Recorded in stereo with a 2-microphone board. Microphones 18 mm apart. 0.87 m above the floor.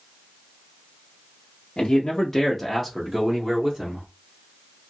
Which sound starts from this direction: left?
A man speaking, at 1.8 s.